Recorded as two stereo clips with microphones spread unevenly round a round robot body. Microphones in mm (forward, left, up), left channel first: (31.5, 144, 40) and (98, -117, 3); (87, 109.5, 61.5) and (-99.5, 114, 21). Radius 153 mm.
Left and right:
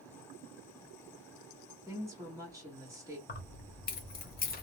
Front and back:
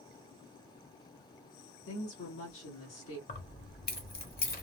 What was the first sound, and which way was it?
A woman speaking, straight ahead.